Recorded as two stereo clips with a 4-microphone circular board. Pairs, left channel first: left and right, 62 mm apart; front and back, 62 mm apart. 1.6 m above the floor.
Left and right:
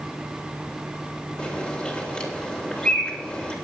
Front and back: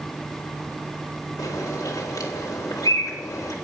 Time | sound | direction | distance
1.4 | a bird | 15° left | 3 m